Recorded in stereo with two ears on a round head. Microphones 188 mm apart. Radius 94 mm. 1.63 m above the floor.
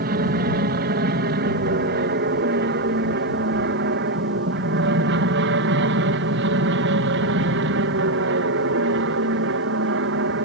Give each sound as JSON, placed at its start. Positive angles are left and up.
{"t": 0.0, "sound": "an aircraft", "side_deg": -45}